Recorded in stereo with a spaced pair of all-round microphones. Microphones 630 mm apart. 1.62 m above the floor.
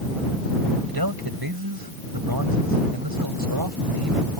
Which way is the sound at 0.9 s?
35° right (ahead or behind).